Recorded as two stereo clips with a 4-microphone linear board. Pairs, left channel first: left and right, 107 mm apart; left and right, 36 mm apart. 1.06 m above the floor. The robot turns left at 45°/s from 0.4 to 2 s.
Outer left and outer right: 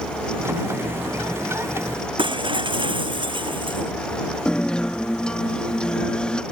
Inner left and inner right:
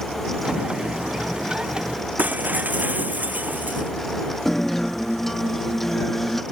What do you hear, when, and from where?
2.2 s breaking glass: 50° right (ahead or behind)
4.5 s a guitar: 10° left (ahead or behind)